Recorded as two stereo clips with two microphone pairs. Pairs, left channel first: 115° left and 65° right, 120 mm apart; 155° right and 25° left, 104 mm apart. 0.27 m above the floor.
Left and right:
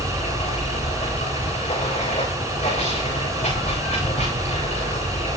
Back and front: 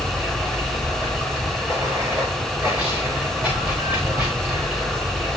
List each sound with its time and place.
0.0 s running water: 100° left, 10 m